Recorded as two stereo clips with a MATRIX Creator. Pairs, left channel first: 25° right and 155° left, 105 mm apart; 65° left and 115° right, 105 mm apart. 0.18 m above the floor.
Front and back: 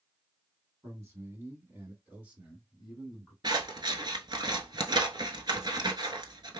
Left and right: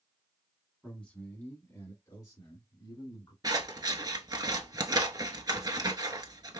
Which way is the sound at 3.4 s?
160° right.